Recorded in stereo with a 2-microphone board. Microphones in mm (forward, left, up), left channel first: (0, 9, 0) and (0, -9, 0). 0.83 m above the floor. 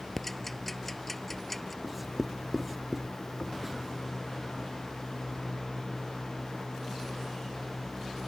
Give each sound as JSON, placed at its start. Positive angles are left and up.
{"t": 0.2, "sound": "ticking", "side_deg": 10}
{"t": 1.8, "sound": "writing", "side_deg": -10}